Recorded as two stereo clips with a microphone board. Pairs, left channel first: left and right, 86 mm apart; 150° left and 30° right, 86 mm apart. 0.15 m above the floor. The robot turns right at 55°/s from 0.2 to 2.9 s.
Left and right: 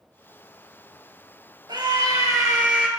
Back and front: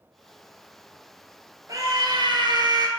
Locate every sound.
1.7 s a scream: 75° right, 2.5 m; by 2.9 s 10° right, 2.5 m